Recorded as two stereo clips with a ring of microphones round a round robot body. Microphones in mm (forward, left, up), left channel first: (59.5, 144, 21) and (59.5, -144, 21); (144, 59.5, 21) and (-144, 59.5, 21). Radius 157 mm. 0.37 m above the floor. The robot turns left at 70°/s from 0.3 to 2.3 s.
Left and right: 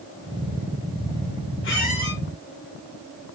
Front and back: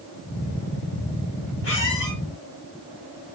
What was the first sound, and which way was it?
A squeak, 45° left.